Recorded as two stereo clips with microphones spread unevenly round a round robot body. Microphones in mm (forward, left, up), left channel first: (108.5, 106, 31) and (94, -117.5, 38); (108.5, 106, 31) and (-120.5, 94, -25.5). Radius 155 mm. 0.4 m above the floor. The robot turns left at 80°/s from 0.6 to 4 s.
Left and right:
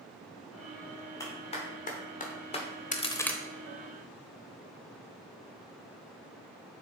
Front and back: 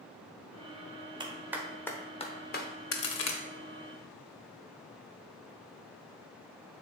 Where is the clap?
155° left, 1.3 m; by 2.7 s 35° left, 1.3 m.